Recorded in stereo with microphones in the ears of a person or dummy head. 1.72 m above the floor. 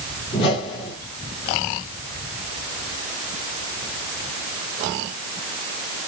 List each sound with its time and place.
0.3 s a whoosh: 45° left (ahead or behind), 4.5 m